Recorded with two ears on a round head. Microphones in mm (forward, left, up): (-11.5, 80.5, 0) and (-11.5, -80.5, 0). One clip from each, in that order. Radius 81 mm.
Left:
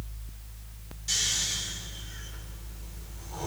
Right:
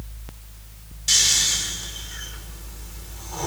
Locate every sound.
1.1 s snoring: 40° right (ahead or behind), 5 m